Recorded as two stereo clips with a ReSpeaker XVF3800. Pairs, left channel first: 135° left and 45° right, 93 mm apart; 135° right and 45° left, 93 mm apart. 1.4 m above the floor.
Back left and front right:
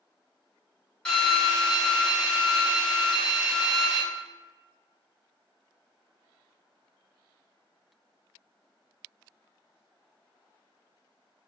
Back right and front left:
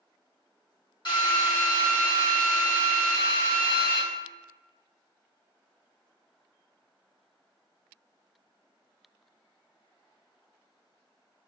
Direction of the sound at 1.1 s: 150° right.